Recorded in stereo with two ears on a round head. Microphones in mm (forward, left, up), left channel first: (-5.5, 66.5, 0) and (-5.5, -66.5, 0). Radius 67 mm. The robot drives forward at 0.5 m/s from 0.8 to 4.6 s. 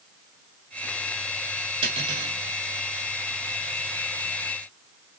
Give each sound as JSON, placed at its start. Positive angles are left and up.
{"t": 1.8, "sound": "cutlery clinking", "side_deg": -35, "distance_m": 3.0}